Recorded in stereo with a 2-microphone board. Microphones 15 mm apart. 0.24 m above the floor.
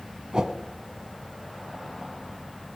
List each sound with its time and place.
0.3 s a whoosh: 60° right (ahead or behind), 1.3 m